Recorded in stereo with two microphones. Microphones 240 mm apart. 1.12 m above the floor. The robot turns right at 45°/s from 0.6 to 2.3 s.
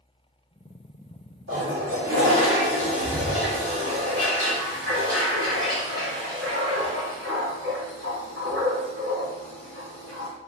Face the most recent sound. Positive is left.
turn(degrees=-65)